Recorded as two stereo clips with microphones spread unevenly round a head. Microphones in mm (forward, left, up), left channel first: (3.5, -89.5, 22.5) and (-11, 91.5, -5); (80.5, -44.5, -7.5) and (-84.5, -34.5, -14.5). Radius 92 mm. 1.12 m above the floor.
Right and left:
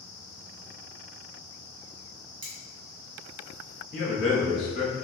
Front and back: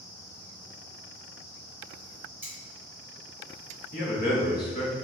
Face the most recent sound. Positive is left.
turn(degrees=-35)